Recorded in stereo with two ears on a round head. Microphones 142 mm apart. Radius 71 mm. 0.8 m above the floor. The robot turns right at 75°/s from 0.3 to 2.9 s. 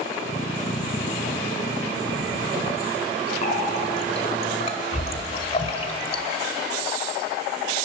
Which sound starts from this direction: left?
A running tap, at 3.4 s.